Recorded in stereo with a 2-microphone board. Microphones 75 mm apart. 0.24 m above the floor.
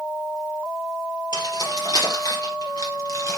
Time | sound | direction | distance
1.3 | keys jangling | 70° left (ahead or behind) | 4.5 m